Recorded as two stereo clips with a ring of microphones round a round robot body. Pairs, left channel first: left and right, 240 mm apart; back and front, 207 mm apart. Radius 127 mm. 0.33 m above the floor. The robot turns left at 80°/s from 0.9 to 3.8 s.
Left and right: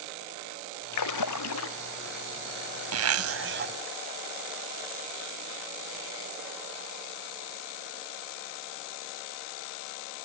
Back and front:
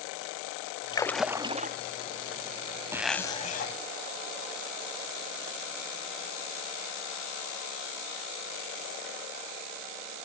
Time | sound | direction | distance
0.9 | a splash | 110° left | ?
2.9 | a zipper | 80° right | ?